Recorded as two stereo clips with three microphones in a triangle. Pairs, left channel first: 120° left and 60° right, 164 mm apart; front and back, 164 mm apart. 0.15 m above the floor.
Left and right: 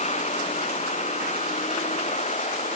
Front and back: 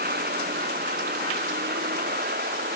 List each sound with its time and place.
0.0 s a vehicle: 165° left